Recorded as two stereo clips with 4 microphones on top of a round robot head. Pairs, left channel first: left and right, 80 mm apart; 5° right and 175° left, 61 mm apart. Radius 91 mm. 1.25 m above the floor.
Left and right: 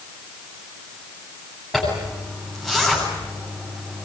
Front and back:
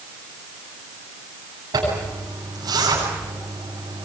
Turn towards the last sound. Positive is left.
turn(degrees=180)